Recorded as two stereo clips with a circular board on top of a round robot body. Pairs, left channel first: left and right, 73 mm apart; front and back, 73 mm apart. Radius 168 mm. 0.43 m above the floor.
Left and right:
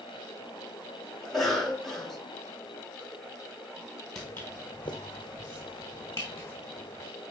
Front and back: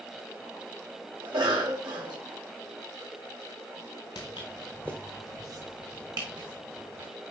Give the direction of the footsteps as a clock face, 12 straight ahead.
12 o'clock.